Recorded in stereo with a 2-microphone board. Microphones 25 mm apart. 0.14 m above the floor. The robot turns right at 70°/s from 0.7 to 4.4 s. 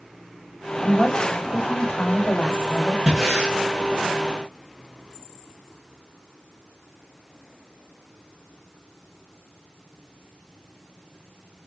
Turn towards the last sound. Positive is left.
turn(degrees=100)